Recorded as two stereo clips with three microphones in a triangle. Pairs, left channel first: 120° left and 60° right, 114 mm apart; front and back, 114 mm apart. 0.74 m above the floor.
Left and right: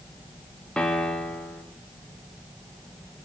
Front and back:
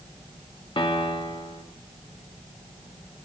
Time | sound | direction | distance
0.8 | a piano | 40° left | 0.9 m